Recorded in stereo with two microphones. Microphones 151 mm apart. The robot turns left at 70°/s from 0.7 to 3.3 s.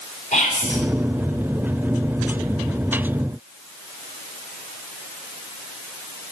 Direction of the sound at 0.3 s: 60° left (ahead or behind).